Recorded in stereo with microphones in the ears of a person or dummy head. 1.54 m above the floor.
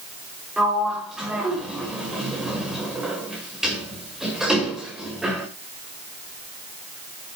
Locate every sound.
0.6 s a sliding door: centre (ahead or behind), 2.5 m